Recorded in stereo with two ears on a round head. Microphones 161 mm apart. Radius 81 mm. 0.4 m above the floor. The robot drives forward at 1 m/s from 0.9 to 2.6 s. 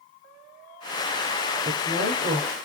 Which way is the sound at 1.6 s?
25° right (ahead or behind).